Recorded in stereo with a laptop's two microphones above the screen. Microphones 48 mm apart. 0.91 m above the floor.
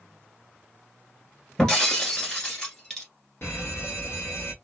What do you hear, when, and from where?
1.6 s breaking glass: 15° left (ahead or behind), 1.1 m
3.4 s an alarm: 55° left (ahead or behind), 0.8 m